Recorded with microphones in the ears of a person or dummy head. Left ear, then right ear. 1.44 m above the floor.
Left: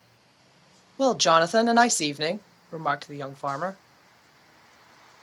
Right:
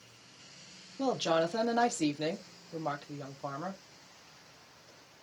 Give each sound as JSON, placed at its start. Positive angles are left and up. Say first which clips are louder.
{"t": 1.0, "sound": "a woman speaking", "louder": "left 10 dB", "side_deg": 65, "distance_m": 0.5}